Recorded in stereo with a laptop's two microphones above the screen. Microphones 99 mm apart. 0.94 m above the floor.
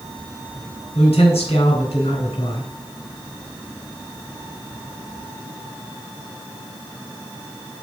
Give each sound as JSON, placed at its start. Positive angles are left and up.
{"t": 0.9, "sound": "a man speaking", "side_deg": 85, "distance_m": 4.0}